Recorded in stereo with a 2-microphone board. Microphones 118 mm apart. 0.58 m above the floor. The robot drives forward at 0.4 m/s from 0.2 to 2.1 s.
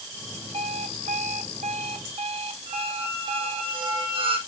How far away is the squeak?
About 2.5 m.